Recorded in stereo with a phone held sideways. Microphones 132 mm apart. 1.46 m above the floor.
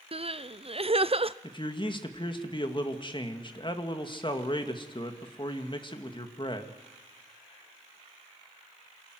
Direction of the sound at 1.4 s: 40° left (ahead or behind).